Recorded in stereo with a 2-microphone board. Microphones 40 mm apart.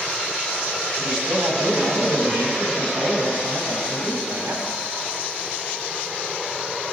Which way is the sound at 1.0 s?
85° right.